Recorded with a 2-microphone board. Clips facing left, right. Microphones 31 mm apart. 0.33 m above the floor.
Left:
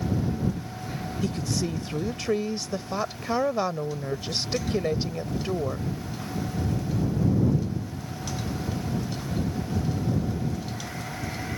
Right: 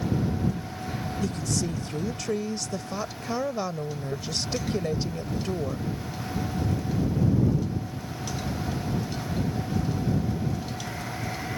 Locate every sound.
1.2 s a woman speaking: 20° left (ahead or behind)